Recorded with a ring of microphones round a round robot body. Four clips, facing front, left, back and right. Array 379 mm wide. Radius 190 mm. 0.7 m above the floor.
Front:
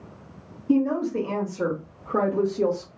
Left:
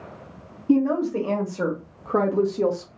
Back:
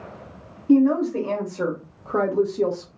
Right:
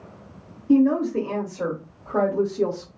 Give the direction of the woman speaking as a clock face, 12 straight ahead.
8 o'clock.